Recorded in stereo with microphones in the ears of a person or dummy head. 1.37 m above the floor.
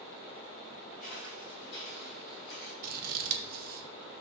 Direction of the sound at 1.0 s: 5° left (ahead or behind).